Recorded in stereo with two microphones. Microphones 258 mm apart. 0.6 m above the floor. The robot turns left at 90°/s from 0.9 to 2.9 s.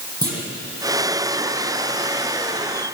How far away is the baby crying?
No baby crying in this recording.